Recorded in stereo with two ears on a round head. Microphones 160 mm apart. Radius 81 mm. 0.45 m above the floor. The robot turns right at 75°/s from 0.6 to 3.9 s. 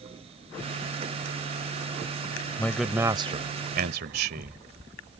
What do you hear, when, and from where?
2.6 s a man speaking: 165° left; by 4.6 s 95° right